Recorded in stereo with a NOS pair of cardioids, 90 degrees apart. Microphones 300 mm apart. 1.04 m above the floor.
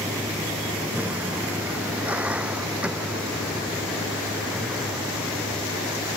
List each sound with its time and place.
0.0 s a vehicle: 5° right